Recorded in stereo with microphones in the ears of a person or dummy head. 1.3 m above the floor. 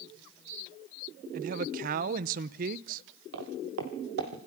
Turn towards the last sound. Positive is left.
turn(degrees=-60)  # may be behind; listen again after turning